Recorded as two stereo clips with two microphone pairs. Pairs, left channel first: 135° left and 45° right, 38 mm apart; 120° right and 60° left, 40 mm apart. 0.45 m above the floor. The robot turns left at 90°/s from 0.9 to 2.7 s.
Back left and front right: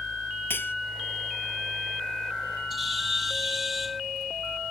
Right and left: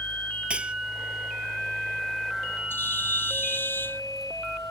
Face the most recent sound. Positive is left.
turn(degrees=-130)